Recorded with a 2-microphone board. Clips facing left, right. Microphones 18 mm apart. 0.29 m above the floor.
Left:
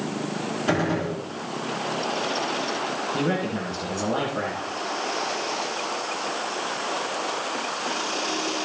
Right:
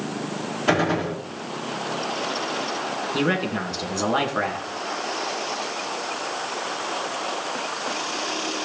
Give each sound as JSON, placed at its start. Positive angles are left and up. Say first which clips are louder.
{"t": 0.7, "sound": "a gunshot", "louder": "right 3 dB", "side_deg": -25, "distance_m": 3.5}
{"t": 3.1, "sound": "a man speaking", "louder": "right 4 dB", "side_deg": -40, "distance_m": 2.5}